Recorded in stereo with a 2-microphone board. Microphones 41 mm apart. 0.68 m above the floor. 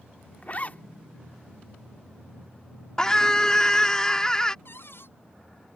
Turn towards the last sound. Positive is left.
turn(degrees=75)  # may be behind; listen again after turning